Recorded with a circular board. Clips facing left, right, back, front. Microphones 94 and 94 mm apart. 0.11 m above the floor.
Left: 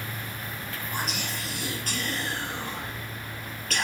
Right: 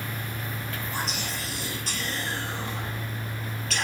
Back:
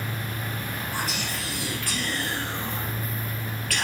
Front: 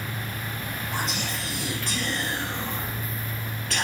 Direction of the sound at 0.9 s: 60° left.